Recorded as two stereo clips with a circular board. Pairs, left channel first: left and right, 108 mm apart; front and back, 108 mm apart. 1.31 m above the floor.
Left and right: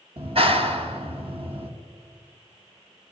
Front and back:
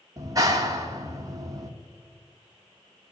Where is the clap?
120° right, 1.8 m.